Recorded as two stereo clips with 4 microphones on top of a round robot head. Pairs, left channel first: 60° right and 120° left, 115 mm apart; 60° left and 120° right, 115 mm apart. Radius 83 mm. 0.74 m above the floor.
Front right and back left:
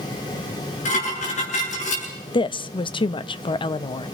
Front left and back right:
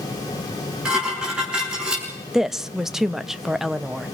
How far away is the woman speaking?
About 0.7 m.